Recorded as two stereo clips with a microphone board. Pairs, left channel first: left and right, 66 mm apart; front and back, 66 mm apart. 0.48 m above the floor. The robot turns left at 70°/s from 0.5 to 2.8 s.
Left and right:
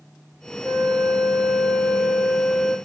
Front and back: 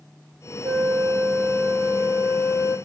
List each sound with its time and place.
0.6 s a flute: 175° right, 2.5 m; by 2.8 s 40° left, 2.5 m